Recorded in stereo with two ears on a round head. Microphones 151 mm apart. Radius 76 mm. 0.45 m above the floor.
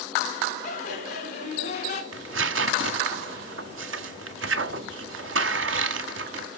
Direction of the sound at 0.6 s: 45° left (ahead or behind).